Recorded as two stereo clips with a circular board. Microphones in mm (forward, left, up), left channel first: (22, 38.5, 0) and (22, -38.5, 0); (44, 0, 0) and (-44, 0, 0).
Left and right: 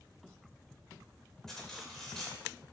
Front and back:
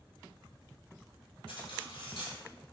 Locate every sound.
1.5 s cutlery clinking: 5° left, 2 m